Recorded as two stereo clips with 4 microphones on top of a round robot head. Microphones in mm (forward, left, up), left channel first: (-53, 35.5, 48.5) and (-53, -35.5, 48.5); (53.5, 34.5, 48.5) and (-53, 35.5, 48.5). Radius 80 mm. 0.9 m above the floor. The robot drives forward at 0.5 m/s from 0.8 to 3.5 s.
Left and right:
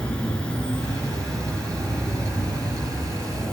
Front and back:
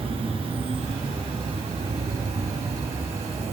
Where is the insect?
165° left, 3 m; by 3.5 s 170° left, 4.5 m.